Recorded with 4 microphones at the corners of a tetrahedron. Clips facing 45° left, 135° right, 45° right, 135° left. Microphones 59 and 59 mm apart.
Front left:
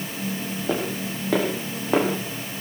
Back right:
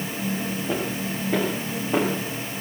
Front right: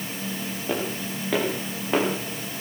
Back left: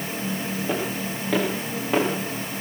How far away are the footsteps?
About 8.5 m.